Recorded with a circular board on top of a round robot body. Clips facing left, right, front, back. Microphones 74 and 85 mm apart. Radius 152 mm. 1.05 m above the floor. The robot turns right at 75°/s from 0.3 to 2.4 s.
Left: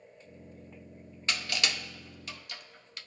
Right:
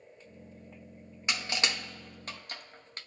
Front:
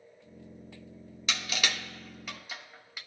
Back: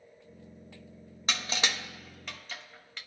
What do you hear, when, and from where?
1.3 s crushing: 155° right, 0.8 m; by 3.0 s 75° right, 0.8 m